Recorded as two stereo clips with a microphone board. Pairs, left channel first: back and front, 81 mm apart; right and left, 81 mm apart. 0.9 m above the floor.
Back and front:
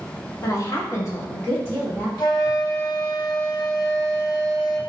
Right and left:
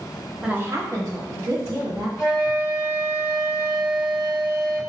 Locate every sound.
0.4 s a woman speaking: 165° left, 0.6 m; by 2.1 s 120° left, 2.5 m
2.2 s a flute: 155° left, 1.8 m